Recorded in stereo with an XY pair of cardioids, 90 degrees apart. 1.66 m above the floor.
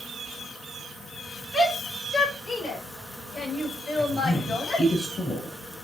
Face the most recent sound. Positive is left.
turn(degrees=45)